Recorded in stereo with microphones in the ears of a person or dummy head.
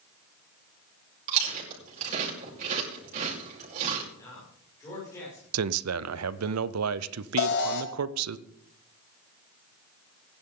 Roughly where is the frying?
No frying in this recording.